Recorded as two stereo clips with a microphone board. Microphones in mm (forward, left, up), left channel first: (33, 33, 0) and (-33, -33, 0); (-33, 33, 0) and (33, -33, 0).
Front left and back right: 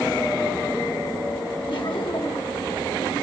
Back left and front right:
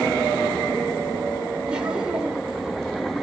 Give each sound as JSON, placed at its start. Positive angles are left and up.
{"t": 1.7, "sound": "laughter", "azimuth_deg": 35, "distance_m": 3.0}